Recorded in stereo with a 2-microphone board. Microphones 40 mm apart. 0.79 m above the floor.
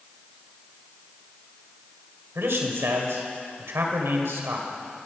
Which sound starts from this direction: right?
A man speaking, at 2.4 s.